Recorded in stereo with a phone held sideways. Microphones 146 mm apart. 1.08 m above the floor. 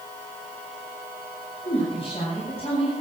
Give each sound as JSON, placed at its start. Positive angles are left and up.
{"t": 1.6, "sound": "a woman speaking", "side_deg": 40, "distance_m": 7.0}